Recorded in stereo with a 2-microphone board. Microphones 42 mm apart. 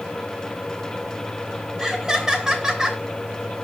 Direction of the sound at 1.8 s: 15° right (ahead or behind).